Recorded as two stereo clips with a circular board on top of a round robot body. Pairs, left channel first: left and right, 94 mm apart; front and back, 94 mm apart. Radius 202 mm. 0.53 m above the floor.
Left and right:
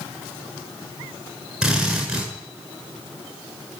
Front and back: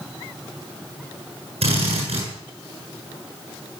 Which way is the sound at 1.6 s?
175° right.